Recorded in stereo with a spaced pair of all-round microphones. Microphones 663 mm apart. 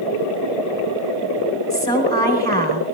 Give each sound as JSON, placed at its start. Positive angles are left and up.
{"t": 1.7, "sound": "a woman speaking", "side_deg": 5, "distance_m": 4.0}